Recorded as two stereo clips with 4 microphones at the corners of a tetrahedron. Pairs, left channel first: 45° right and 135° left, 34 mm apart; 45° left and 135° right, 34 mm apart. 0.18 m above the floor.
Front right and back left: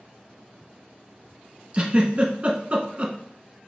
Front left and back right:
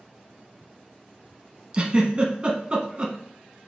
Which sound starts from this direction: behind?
A giggle, at 1.7 s.